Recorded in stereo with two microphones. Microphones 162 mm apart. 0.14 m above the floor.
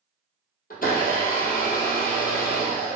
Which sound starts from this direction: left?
A blender, at 0.7 s.